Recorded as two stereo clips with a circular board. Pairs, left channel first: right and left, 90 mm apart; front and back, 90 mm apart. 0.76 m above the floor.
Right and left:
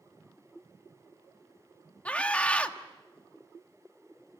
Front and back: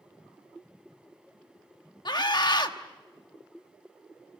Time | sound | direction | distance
2.0 | a scream | 15° right | 1.4 m